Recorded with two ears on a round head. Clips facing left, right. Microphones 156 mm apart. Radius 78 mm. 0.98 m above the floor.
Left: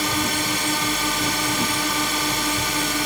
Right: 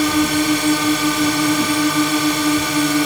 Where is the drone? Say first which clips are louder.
Right 9 dB; 70° right (ahead or behind).